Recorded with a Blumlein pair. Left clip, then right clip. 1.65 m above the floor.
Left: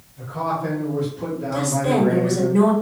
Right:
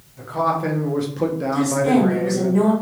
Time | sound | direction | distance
0.2 | a man speaking | 70° right | 1.1 m
1.5 | a woman speaking | 15° left | 1.6 m